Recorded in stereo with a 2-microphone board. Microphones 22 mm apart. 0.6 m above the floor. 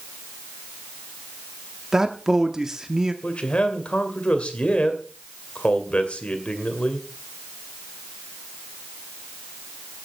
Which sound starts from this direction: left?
A man speaking, at 3.2 s.